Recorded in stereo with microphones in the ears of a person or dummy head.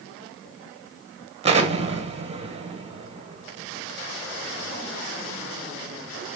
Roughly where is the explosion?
Right.